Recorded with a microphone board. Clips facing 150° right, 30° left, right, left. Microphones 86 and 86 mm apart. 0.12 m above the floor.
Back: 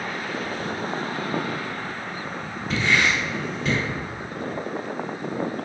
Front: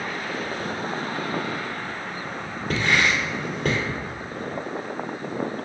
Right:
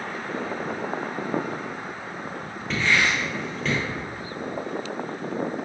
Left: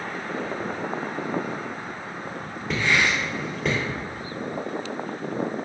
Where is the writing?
10° left, 2.5 m.